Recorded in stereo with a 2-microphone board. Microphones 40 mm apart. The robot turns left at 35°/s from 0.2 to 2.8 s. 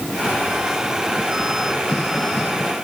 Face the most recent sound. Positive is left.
No sound to turn to.